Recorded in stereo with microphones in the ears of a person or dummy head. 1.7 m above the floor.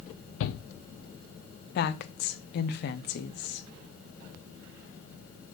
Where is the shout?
90° left, 0.6 m.